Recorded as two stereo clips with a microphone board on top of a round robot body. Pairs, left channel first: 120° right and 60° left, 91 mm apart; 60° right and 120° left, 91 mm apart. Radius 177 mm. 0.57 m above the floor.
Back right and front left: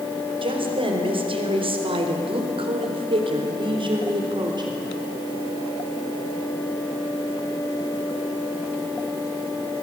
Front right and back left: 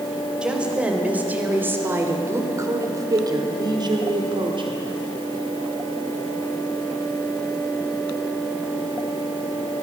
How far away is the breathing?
No breathing in this recording.